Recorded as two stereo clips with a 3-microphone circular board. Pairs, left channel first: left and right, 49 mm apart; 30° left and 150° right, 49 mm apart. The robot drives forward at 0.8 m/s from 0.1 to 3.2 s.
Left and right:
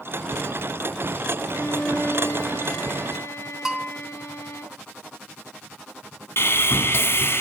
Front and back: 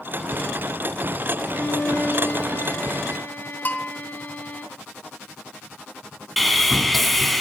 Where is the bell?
10° right, 1.8 m.